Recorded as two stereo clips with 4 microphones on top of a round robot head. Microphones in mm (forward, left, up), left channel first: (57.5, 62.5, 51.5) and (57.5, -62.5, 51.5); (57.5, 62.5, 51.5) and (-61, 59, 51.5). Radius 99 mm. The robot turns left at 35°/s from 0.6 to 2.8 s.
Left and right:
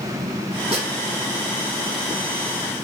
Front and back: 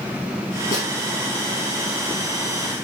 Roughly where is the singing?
No singing in this recording.